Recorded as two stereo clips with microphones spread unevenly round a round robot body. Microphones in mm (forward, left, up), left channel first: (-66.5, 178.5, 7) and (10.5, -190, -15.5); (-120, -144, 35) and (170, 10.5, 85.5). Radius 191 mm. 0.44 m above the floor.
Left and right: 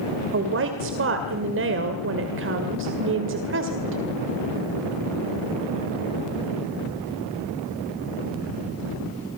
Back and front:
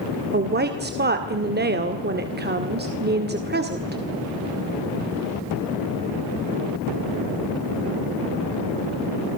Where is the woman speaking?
35° right, 2.0 m.